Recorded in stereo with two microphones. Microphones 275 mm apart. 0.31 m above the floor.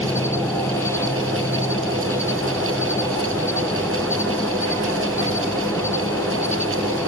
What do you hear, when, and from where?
0.0 s an insect: 10° left (ahead or behind)